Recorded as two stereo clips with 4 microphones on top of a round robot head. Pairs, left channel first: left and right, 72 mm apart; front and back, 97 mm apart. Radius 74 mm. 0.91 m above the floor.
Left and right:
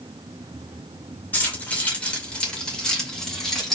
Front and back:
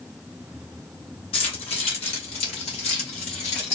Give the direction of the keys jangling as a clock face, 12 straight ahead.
11 o'clock.